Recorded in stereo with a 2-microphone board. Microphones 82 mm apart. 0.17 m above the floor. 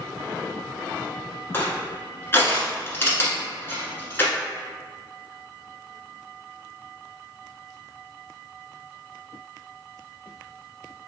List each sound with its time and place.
1.5 s crushing: 25° left (ahead or behind), 1.2 m